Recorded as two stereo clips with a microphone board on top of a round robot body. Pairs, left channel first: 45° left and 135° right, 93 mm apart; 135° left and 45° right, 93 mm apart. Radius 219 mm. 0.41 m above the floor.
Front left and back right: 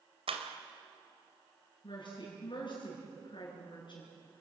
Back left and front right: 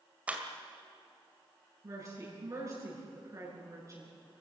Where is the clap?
120° right, 2.5 m.